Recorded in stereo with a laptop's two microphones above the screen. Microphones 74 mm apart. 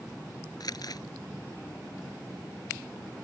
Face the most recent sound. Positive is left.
turn(degrees=60)  # may be behind; listen again after turning